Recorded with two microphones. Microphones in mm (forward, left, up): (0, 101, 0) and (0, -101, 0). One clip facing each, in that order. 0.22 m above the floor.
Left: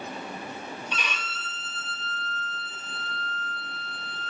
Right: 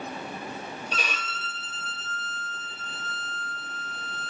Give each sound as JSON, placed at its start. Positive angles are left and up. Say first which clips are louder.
{"t": 0.9, "sound": "a violin", "louder": "right 2 dB", "side_deg": -40, "distance_m": 1.5}